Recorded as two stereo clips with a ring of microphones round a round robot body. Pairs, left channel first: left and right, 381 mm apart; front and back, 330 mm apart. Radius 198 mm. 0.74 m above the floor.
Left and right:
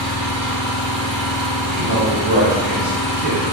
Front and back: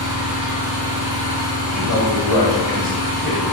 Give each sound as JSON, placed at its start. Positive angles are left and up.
{"t": 0.0, "sound": "an engine running", "azimuth_deg": -160, "distance_m": 0.9}
{"t": 1.7, "sound": "a man speaking", "azimuth_deg": -25, "distance_m": 0.9}